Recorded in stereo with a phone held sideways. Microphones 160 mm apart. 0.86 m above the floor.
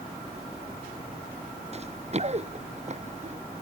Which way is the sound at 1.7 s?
40° right (ahead or behind).